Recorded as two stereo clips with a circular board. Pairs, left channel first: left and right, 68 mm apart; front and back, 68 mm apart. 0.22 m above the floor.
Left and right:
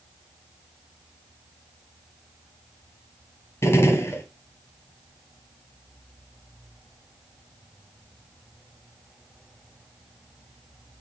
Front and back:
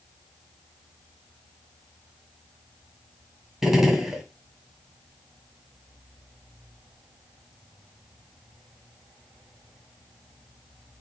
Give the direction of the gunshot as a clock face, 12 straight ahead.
9 o'clock.